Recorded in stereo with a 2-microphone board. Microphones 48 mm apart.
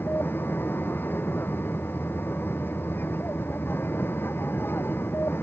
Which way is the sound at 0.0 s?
45° left (ahead or behind).